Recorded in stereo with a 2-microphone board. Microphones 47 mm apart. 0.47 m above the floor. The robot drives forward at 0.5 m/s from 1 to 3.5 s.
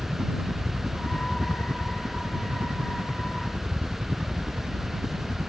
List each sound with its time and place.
0.0 s a helicopter: 40° right (ahead or behind)